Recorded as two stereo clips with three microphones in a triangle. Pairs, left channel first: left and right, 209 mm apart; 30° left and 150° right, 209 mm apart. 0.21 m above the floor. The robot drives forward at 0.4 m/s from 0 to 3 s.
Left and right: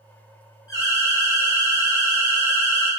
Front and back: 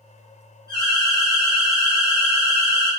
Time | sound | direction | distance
0.7 | an alarm | 155° left | 1.7 m